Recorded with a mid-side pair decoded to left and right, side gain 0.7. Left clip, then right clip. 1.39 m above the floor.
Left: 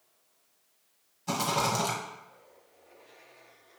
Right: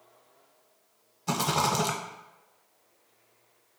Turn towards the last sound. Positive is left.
turn(degrees=-20)